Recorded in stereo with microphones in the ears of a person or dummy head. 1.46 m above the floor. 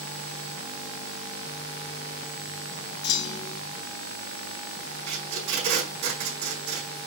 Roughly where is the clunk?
Left.